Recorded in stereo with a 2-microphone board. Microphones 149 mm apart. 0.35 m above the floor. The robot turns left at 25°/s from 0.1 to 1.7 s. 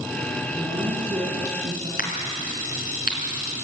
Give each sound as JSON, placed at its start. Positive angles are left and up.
{"t": 0.6, "sound": "a woman speaking", "side_deg": -10, "distance_m": 5.0}
{"t": 2.0, "sound": "a crack", "side_deg": 75, "distance_m": 4.0}